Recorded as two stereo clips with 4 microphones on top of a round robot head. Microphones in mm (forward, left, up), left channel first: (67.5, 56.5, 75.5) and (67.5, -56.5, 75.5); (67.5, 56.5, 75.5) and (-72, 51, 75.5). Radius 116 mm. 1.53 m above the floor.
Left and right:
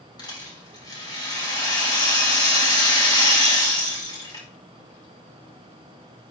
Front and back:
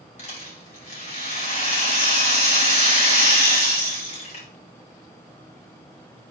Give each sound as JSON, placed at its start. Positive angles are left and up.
{"t": 0.2, "sound": "a rattle", "azimuth_deg": 35, "distance_m": 4.0}